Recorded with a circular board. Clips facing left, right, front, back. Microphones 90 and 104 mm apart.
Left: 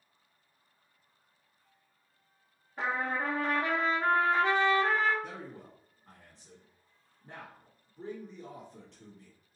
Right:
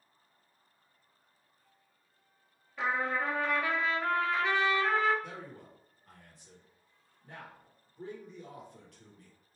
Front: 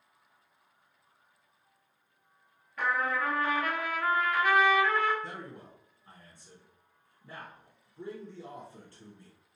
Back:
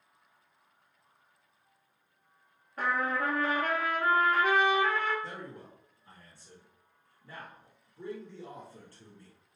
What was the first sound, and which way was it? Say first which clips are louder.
A trumpet: right 1 dB, even; 130° left.